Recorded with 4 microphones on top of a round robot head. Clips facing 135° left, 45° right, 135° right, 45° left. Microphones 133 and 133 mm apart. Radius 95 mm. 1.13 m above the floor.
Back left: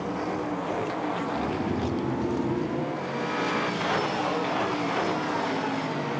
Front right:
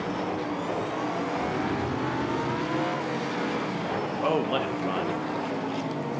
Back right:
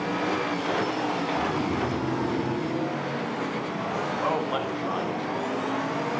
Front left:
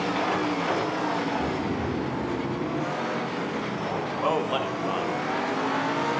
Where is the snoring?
155° left, 4.5 m.